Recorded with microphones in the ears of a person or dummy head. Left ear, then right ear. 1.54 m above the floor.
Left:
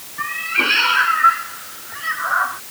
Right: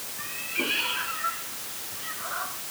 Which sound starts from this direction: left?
A cat meowing, at 0.2 s.